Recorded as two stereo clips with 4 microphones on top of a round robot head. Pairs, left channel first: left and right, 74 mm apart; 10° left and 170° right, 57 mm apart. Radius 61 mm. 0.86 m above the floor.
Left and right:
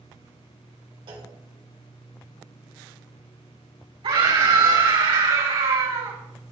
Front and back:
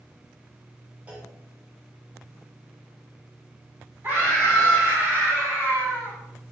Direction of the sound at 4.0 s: 110° right.